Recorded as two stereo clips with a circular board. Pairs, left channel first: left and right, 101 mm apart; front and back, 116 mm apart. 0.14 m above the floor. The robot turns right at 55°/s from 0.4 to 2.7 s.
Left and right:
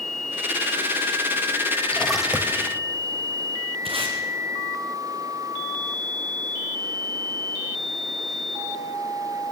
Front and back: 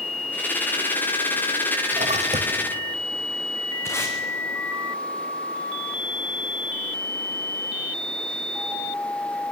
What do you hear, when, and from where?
1.9 s a splash: 165° left, 1.4 m; by 2.8 s 150° right, 1.4 m
3.9 s tape being pulled: 65° right, 3.5 m